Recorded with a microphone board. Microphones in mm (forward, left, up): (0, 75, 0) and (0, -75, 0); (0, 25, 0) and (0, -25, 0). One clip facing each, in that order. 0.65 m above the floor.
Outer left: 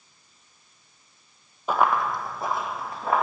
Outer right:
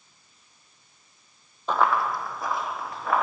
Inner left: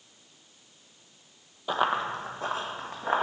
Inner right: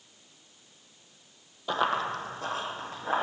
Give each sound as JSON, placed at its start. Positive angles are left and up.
{"t": 1.7, "sound": "running footsteps", "side_deg": 10, "distance_m": 0.7}